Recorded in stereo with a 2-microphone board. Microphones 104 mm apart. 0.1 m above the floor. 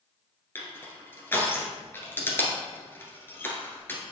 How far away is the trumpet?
I don't hear a trumpet.